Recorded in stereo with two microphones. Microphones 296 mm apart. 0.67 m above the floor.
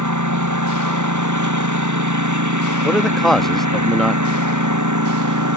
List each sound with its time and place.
0.0 s a lawn mower: 75° right (ahead or behind)
2.8 s a man speaking: centre (ahead or behind)